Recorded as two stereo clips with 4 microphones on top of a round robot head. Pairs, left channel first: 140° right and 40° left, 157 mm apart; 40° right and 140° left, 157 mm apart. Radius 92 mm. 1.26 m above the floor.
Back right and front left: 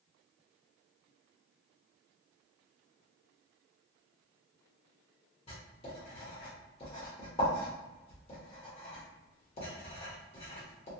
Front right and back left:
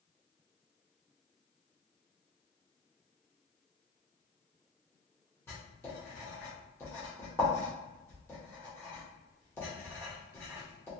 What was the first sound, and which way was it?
Writing, 105° right.